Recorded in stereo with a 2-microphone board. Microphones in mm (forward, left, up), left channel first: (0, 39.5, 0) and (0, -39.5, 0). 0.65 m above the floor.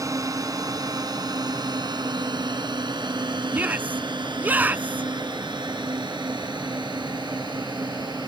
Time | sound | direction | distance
0.0 | a drone | 50° right (ahead or behind) | ?
3.5 | a shout | 25° right (ahead or behind) | ?